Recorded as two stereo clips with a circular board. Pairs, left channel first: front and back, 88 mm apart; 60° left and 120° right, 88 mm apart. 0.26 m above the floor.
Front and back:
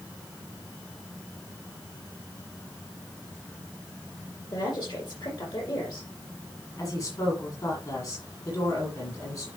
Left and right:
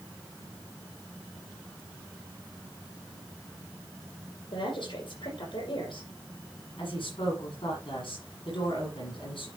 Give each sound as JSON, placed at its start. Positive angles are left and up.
{"t": 4.5, "sound": "a woman speaking", "azimuth_deg": 40, "distance_m": 8.0}
{"t": 6.8, "sound": "a woman speaking", "azimuth_deg": 45, "distance_m": 9.0}